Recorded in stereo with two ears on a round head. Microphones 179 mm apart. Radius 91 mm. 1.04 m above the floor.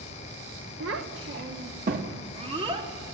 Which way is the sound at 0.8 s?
70° right (ahead or behind).